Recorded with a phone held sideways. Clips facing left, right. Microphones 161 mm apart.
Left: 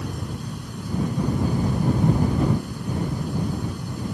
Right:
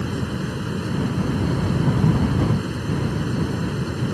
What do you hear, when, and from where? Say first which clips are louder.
0.0 s a fan: right 6 dB; 75° right (ahead or behind)